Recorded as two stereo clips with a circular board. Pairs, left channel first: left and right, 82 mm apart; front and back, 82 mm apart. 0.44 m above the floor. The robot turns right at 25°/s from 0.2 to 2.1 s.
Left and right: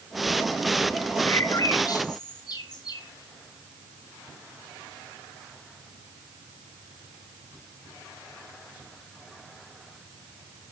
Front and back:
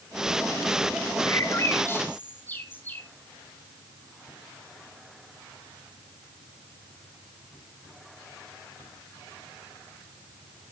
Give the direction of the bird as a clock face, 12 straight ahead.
11 o'clock.